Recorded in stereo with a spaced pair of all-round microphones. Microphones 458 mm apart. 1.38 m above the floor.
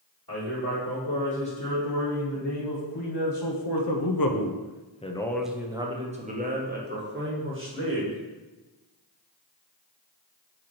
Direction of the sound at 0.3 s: 50° left (ahead or behind).